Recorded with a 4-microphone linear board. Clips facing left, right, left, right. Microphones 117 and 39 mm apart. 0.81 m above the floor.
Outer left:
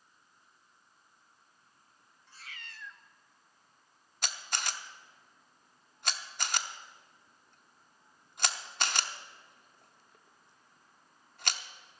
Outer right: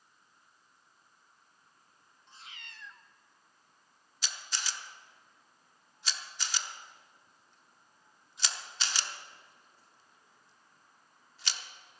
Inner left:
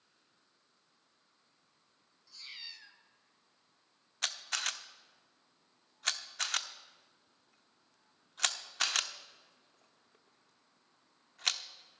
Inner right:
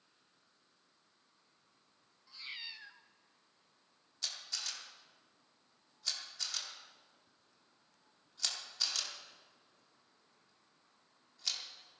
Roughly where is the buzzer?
No buzzer in this recording.